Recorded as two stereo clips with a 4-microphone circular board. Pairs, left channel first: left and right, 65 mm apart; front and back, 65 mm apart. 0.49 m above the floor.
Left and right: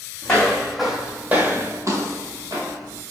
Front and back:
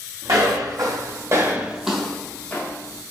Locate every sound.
0.2 s footsteps: 170° left, 1.4 m; by 3.0 s 55° right, 1.4 m